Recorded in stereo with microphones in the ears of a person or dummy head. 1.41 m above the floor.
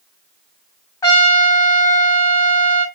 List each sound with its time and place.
1.0 s a trumpet: 20° left (ahead or behind), 1.2 m